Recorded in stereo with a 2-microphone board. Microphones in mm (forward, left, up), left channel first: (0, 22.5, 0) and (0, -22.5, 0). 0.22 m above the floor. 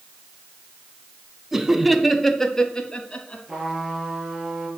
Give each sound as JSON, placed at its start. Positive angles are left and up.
{"t": 1.5, "sound": "laughter", "side_deg": -10, "distance_m": 1.5}
{"t": 3.5, "sound": "a trumpet", "side_deg": -10, "distance_m": 4.5}